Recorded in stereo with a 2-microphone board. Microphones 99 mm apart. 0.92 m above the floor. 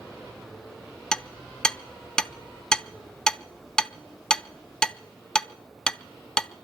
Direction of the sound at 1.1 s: 5° left (ahead or behind).